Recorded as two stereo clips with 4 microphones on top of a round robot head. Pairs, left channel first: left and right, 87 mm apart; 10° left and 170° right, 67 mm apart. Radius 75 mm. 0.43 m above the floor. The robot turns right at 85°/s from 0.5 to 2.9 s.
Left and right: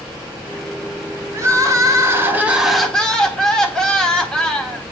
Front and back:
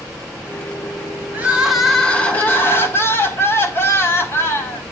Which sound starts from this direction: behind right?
Crying, at 1.3 s.